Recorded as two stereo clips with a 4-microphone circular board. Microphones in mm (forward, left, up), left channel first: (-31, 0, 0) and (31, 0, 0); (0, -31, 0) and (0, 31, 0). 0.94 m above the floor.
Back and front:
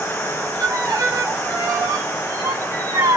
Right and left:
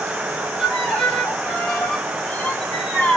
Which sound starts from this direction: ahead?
A violin, at 0.6 s.